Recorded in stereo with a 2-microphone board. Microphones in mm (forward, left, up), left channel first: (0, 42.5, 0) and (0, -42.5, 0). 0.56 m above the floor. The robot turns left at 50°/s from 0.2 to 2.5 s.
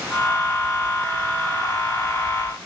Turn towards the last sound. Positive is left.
No sound to turn to.